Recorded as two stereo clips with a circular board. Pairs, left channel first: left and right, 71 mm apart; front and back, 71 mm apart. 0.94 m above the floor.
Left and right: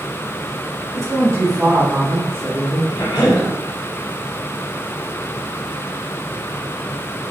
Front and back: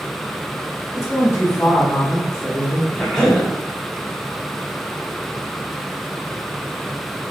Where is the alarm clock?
I don't hear an alarm clock.